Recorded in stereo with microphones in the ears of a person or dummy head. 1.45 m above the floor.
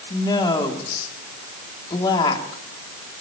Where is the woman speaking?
30° left (ahead or behind), 3 m.